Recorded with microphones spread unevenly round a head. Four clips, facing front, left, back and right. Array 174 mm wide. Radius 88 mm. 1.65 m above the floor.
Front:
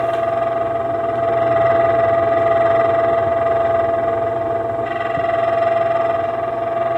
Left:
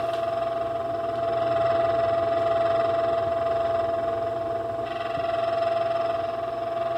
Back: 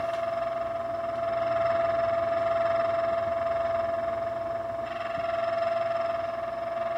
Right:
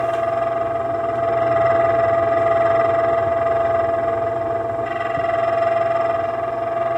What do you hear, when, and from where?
0.0 s a fan: 15° right